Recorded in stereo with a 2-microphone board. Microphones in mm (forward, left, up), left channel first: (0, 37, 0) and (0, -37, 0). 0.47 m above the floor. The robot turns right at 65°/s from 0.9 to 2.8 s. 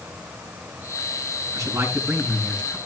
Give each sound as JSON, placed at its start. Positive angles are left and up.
{"t": 1.5, "sound": "a man speaking", "azimuth_deg": -55, "distance_m": 4.5}